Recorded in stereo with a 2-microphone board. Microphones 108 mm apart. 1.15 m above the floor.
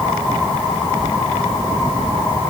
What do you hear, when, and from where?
Only background noise.